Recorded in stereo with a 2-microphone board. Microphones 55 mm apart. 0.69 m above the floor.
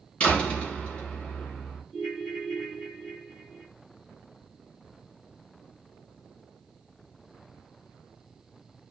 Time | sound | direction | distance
0.2 | a door slam | 30° left (ahead or behind) | 2.5 m
1.9 | a ringtone | 30° left (ahead or behind) | 2 m